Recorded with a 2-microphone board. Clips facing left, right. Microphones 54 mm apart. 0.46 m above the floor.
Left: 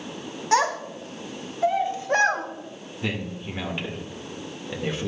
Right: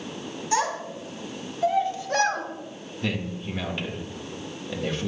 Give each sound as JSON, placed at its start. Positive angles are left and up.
{"t": 0.5, "sound": "a child speaking", "side_deg": 60, "distance_m": 1.4}
{"t": 3.0, "sound": "a man speaking", "side_deg": 10, "distance_m": 1.3}